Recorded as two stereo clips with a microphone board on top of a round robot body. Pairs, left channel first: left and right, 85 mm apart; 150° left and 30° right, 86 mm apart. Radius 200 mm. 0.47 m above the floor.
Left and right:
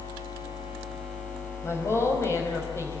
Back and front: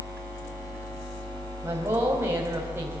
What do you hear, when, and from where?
1.6 s a woman speaking: 30° left, 4.5 m